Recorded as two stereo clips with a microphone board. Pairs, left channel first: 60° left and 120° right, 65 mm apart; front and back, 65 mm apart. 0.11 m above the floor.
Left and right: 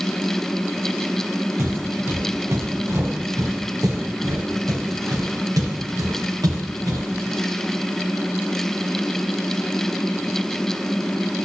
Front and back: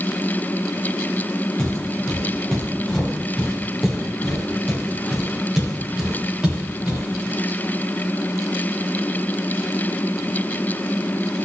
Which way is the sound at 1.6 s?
80° right.